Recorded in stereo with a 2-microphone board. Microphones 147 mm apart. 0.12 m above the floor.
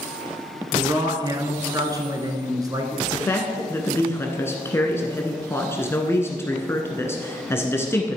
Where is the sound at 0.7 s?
25° right (ahead or behind), 1.3 m.